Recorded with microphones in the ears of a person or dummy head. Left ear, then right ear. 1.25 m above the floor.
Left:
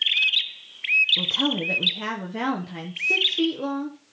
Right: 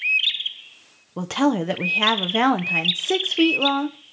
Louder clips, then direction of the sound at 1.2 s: Right 1 dB; 45° right (ahead or behind).